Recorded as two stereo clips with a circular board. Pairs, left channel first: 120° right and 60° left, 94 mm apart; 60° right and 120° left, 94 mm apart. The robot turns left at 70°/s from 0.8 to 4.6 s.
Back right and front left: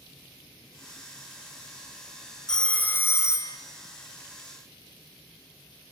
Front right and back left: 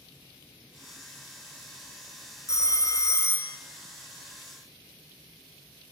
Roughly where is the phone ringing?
Ahead right.